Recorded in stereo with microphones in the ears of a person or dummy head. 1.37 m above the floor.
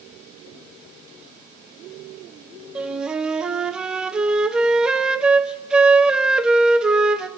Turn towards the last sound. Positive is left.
turn(degrees=-5)  # may be behind; listen again after turning